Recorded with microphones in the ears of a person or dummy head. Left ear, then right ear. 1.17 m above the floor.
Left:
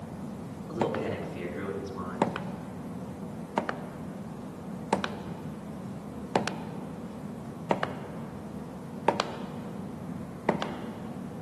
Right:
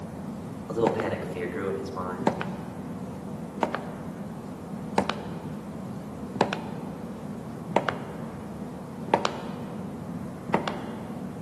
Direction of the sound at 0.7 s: 40° right (ahead or behind).